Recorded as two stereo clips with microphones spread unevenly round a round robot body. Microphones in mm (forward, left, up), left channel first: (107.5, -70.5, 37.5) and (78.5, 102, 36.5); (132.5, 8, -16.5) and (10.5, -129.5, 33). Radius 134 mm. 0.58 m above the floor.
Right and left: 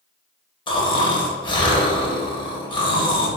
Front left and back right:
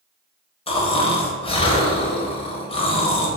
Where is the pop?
No pop in this recording.